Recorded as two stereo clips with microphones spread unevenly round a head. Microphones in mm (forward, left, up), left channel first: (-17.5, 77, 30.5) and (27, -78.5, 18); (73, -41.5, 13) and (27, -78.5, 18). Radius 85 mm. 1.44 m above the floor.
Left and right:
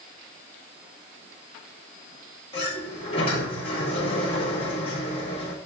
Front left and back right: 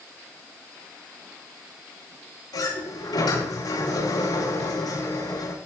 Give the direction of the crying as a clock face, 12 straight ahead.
I don't hear crying.